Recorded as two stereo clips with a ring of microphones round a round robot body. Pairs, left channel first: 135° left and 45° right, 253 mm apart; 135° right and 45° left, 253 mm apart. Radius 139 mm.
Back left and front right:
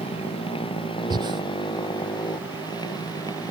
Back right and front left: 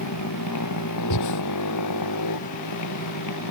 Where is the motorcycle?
155° right; by 3.5 s 150° right.